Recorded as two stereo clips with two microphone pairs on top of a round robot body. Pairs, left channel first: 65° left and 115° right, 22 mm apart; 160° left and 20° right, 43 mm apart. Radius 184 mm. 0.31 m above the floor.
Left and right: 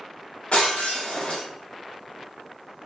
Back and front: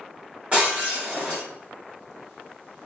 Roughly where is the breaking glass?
Ahead left.